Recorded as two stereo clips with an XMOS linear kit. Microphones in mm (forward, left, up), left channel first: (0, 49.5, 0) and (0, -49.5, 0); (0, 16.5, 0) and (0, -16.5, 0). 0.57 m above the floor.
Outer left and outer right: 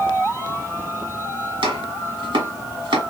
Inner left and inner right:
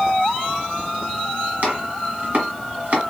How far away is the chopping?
About 1.5 m.